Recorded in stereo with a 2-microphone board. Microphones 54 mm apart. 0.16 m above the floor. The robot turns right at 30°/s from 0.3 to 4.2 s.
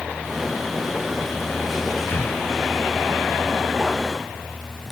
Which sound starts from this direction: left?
Breathing, at 2.1 s.